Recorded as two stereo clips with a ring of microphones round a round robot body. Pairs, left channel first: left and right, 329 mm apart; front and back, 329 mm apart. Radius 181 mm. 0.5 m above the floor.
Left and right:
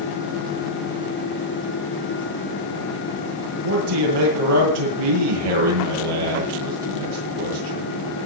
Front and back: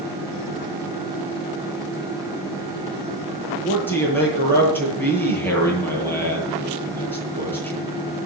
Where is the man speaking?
85° right, 9.5 m.